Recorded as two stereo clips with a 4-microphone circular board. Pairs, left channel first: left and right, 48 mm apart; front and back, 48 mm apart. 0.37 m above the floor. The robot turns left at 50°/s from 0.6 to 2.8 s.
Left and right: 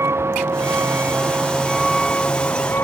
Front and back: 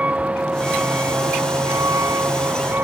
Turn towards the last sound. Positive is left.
turn(degrees=135)